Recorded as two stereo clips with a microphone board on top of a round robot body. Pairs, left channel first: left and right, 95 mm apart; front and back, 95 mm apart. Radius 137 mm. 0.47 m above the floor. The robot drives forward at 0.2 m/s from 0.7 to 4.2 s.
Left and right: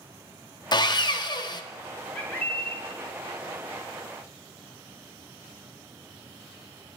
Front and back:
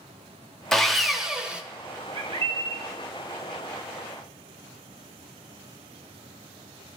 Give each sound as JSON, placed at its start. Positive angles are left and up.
{"t": 0.7, "sound": "sawing", "azimuth_deg": 85, "distance_m": 0.7}
{"t": 2.1, "sound": "a bird", "azimuth_deg": 165, "distance_m": 0.9}